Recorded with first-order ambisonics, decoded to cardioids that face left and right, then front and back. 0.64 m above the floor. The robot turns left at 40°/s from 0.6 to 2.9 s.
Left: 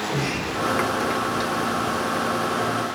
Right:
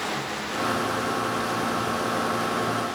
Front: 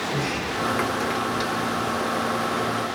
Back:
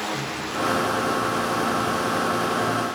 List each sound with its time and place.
0.1 s a sliding door: 60° left, 0.9 m; by 2.9 s 30° right, 0.9 m